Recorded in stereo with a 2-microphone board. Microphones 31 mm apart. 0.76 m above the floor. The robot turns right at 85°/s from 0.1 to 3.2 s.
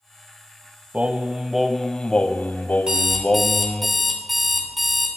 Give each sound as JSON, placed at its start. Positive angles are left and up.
{"t": 0.9, "sound": "singing", "azimuth_deg": -65, "distance_m": 1.0}
{"t": 2.9, "sound": "an alarm clock", "side_deg": -30, "distance_m": 2.5}